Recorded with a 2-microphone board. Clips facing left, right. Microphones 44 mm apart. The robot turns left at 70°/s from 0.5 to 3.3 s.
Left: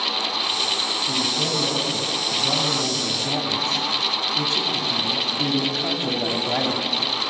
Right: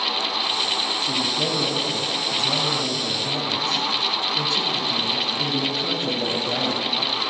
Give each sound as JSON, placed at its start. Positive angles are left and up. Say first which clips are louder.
{"t": 1.0, "sound": "a man speaking", "louder": "even", "azimuth_deg": -120, "distance_m": 2.5}